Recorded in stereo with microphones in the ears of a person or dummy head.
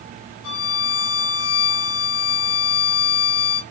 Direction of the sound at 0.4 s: 80° left.